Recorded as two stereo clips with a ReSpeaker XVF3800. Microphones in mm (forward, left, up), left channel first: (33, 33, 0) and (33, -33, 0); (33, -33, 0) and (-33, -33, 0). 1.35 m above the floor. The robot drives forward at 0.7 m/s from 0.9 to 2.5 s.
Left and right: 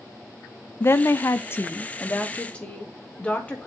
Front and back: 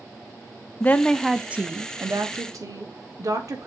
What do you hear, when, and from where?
0.8 s a woman speaking: 55° left, 0.5 m; by 3.7 s 160° left, 1.0 m